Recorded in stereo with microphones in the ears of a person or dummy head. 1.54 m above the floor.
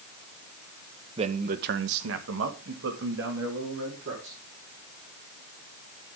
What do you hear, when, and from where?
1.2 s a man speaking: 30° right (ahead or behind), 1.0 m; by 4.4 s 60° right (ahead or behind), 3 m